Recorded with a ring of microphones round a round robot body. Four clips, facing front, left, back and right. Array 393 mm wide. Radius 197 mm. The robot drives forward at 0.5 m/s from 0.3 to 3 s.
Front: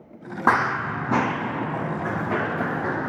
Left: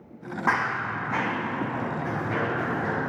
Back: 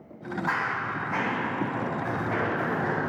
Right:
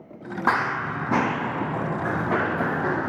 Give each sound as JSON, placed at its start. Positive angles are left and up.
{"t": 0.5, "sound": "running footsteps", "azimuth_deg": -15, "distance_m": 0.8}